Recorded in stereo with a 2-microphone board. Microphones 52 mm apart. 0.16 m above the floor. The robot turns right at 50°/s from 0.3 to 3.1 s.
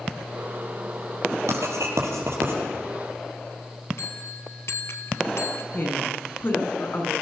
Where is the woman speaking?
45° left (ahead or behind), 8.5 m.